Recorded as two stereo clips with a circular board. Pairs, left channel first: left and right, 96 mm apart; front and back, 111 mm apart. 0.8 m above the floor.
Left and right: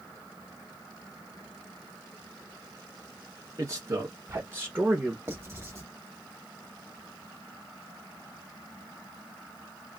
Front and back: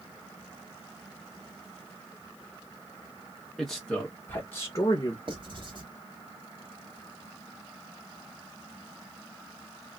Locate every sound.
3.6 s a man speaking: 85° right, 1.2 m; by 5.2 s 25° right, 1.2 m
5.3 s writing: 145° right, 1.6 m